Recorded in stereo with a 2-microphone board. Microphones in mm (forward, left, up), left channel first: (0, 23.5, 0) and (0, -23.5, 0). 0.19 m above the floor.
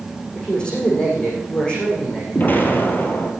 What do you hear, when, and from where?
0.3 s a man speaking: 25° left (ahead or behind), 8 m
2.4 s an explosion: 45° left (ahead or behind), 3.5 m